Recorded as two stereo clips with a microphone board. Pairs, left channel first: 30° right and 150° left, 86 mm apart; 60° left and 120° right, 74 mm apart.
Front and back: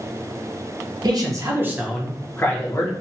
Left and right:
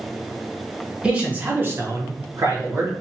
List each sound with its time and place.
1.0 s a man speaking: 165° left, 0.9 m; by 2.9 s 75° right, 1.0 m